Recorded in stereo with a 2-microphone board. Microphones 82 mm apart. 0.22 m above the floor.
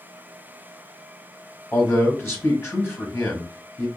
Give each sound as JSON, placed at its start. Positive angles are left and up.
{"t": 1.7, "sound": "a man speaking", "side_deg": 30, "distance_m": 1.2}